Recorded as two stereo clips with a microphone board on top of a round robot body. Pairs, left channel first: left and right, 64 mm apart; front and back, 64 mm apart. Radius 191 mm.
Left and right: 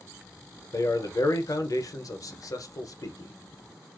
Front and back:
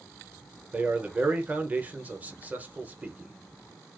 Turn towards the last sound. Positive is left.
turn(degrees=115)